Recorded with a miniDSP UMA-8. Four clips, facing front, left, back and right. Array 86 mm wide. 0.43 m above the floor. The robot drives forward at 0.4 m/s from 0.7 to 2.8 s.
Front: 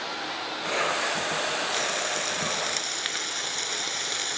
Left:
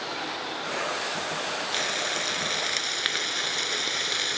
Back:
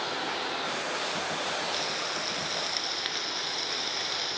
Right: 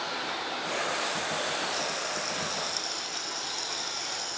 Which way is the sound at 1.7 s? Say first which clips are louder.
Left 2 dB, front 4 dB; 75° left.